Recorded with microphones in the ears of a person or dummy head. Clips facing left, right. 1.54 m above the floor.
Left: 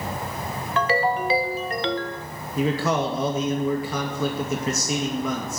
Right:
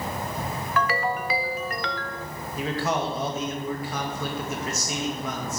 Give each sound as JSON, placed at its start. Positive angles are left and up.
{"t": 0.8, "sound": "a ringtone", "side_deg": 25, "distance_m": 0.9}
{"t": 2.6, "sound": "a man speaking", "side_deg": 75, "distance_m": 2.5}